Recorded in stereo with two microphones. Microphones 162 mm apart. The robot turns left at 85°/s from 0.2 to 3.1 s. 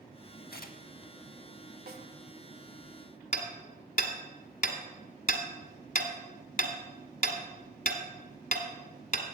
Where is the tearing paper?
75° left (ahead or behind), 0.5 m; by 1.1 s 25° left (ahead or behind), 0.5 m.